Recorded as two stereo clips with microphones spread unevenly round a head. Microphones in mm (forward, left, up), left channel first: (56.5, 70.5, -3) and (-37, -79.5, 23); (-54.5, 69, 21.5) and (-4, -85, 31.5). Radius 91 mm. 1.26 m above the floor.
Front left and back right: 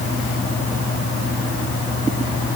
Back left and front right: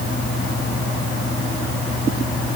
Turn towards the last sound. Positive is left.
No sound to turn to.